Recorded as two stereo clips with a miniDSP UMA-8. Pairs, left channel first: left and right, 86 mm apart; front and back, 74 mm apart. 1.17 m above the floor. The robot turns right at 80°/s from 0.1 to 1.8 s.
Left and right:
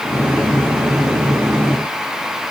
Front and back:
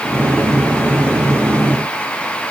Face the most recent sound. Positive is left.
No sound to turn to.